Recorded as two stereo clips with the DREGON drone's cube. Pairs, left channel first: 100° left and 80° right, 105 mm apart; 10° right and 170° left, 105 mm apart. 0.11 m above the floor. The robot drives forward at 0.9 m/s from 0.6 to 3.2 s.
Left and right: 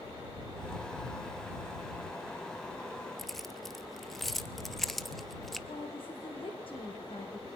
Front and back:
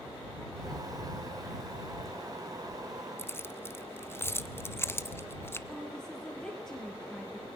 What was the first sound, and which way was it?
Keys jangling, 15° left.